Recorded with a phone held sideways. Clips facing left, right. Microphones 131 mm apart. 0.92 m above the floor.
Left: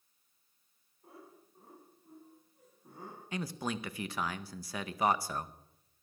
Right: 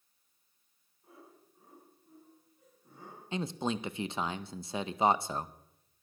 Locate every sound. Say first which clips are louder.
1.0 s laughter: left 2 dB; 45° left (ahead or behind), 7 m
3.3 s a man speaking: right 4 dB; 25° right (ahead or behind), 0.7 m